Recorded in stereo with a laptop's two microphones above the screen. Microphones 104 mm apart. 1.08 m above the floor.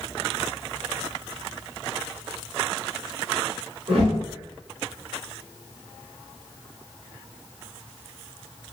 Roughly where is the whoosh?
Right.